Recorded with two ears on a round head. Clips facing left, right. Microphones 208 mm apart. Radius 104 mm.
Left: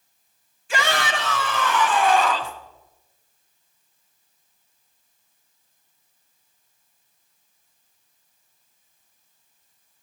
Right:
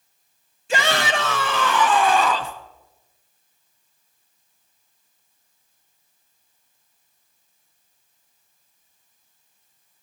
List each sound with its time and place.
0.7 s a shout: 25° right (ahead or behind), 1.1 m; by 2.5 s 85° right, 1.4 m